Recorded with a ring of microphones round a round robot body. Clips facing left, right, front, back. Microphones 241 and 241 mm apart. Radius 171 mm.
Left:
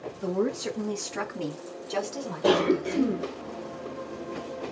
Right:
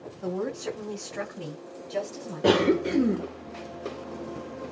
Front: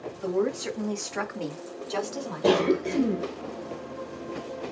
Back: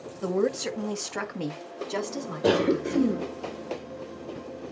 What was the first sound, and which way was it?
A woman speaking, 170° left.